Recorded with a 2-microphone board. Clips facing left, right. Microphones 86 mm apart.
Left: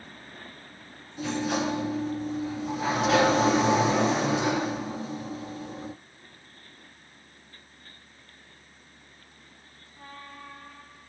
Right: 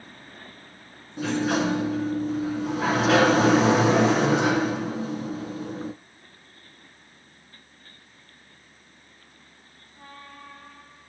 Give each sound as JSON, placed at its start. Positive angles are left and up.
{"t": 1.2, "sound": "a sliding door", "side_deg": -75, "distance_m": 0.6}